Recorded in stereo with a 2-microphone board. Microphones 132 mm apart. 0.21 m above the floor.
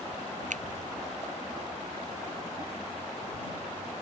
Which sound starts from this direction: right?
A finger snap, at 0.5 s.